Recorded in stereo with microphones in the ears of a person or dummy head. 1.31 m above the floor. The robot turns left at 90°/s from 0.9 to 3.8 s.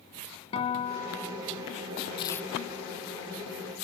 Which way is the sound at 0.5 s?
40° left.